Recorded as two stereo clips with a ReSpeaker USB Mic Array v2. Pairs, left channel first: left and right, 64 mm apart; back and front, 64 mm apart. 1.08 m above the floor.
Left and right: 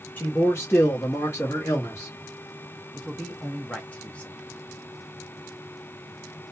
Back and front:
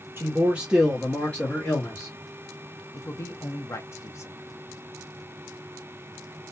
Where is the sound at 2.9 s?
155° left, 0.7 m.